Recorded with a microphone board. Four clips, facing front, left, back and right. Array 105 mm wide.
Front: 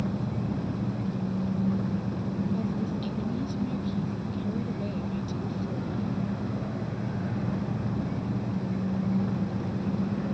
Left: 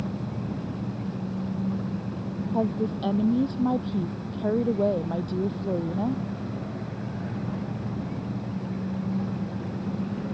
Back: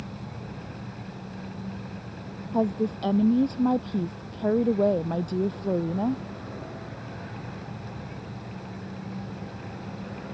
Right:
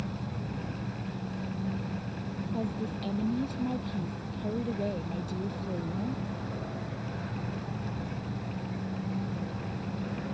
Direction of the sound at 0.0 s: 35° left.